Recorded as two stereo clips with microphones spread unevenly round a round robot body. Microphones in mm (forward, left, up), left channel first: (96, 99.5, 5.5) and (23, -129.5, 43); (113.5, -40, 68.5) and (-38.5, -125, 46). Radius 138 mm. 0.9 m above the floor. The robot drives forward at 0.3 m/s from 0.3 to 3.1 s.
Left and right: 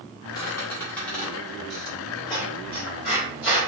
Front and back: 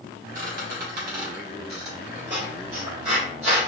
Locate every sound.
0.3 s a squeak: 150° left, 0.5 m; by 3.7 s 170° left, 1.3 m